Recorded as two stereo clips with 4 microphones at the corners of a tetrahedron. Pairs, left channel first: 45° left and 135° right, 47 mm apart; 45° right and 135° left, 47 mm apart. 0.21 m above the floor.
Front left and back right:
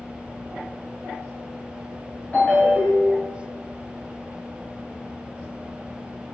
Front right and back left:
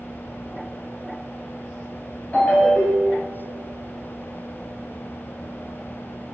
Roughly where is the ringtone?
Ahead.